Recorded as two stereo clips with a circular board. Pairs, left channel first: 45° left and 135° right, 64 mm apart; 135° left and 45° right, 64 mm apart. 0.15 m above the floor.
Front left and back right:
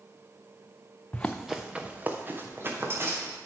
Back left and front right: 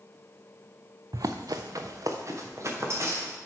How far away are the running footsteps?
About 0.8 m.